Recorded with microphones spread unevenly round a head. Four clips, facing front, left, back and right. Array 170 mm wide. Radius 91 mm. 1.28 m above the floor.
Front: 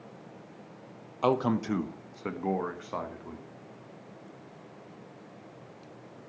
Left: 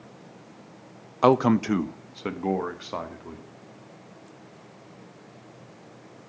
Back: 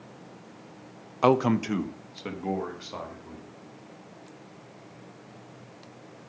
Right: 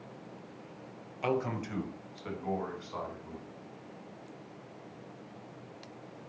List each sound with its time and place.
1.2 s a man speaking: 110° left, 0.8 m; by 3.5 s 75° left, 2.5 m